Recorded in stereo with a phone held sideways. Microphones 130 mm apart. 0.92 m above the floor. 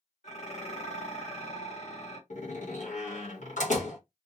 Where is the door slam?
70° left (ahead or behind), 1.2 m.